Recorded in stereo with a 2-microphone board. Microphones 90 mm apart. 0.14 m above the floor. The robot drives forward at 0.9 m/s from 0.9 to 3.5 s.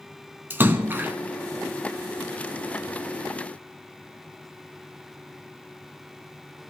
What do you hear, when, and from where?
0.5 s a splash: 25° right (ahead or behind), 0.7 m